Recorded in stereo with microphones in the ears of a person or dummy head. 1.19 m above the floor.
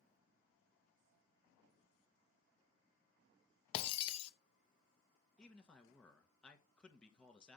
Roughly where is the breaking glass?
Left.